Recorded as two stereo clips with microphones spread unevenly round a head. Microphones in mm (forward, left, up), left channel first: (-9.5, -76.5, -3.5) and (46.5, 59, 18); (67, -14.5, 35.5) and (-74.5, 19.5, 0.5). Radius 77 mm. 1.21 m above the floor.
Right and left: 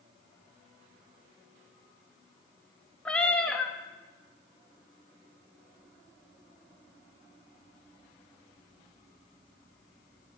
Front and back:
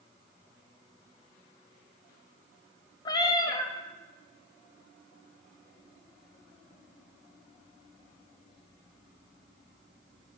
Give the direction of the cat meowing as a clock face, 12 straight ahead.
1 o'clock.